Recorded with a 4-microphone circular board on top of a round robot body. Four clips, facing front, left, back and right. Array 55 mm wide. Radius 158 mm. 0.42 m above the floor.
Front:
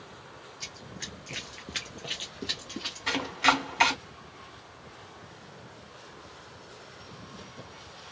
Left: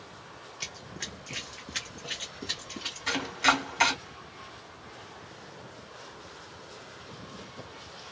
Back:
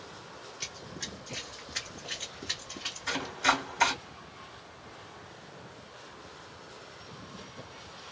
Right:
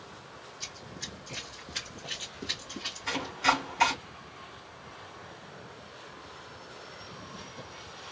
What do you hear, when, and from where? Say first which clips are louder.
0.6 s running footsteps: left 5 dB, even; 110° left, 0.6 m; by 3.3 s 10° right, 1.8 m
3.1 s chopping: left 2 dB, front 3 dB; 20° left, 2 m